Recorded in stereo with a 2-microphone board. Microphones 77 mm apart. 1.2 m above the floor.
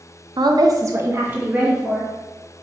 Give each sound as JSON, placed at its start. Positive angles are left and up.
{"t": 0.4, "sound": "a woman speaking", "side_deg": -70, "distance_m": 0.6}